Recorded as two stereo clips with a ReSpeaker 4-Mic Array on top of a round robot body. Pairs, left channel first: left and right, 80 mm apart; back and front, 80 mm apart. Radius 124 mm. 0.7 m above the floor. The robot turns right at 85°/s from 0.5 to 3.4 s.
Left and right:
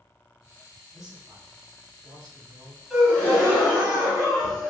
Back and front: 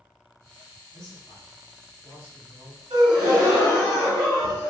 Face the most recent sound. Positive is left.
turn(degrees=40)